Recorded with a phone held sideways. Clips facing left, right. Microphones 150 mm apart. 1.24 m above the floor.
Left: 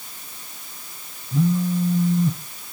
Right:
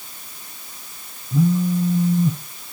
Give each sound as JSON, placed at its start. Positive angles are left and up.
{"t": 1.3, "sound": "a phone buzzing", "side_deg": -10, "distance_m": 0.8}